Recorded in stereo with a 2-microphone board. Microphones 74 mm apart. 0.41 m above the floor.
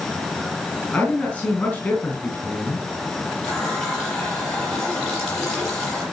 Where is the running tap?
5° left (ahead or behind), 9 m.